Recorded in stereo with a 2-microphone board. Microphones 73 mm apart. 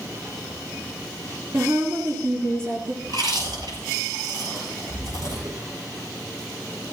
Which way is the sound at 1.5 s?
55° right (ahead or behind).